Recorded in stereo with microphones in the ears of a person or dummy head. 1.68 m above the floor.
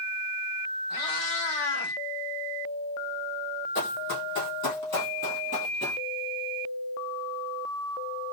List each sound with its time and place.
0.9 s a cat meowing: 60° left (ahead or behind), 2.5 m; by 2.0 s 45° left (ahead or behind), 2.5 m
3.8 s running footsteps: 55° left (ahead or behind), 3 m; by 6.0 s 25° left (ahead or behind), 1.9 m